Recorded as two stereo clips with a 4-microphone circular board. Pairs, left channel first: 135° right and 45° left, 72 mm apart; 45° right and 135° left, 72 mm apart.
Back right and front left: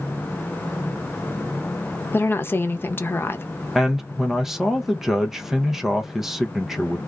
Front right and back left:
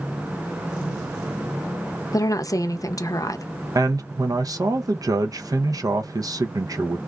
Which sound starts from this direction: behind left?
A man speaking, at 3.8 s.